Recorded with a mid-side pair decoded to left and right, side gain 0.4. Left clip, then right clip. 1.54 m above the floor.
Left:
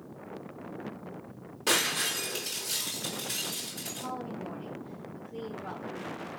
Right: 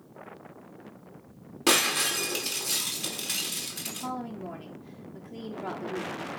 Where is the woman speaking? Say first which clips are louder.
Right 2 dB; 65° right, 4.5 m.